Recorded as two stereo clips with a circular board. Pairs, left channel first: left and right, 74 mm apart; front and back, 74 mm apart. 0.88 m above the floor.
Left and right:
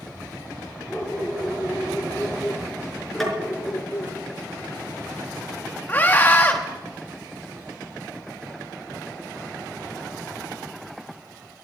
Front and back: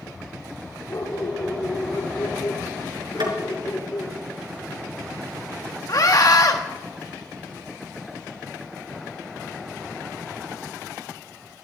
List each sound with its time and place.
0.9 s a dog barking: 5° right, 4.5 m; by 4.2 s 40° left, 3 m
3.2 s tapping: 175° left, 4.5 m
5.9 s a scream: 25° left, 1.2 m